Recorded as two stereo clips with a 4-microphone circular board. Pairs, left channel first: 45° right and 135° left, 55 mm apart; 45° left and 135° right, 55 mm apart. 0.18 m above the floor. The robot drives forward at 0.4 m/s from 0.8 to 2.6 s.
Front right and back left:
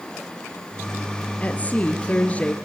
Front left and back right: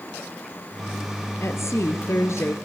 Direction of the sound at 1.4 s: 15° left.